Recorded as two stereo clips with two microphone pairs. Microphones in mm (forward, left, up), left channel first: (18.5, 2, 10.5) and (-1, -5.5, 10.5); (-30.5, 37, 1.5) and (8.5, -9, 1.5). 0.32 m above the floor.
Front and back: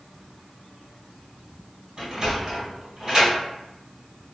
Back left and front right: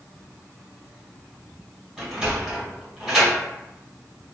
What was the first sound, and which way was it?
A sliding door, 120° right.